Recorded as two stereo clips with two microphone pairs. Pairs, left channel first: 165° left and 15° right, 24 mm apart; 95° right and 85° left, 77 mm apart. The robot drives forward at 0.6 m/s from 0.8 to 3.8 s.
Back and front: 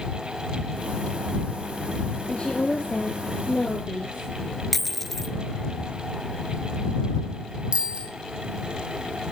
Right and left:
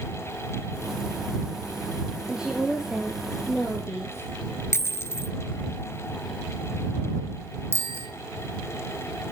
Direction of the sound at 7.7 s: 30° left.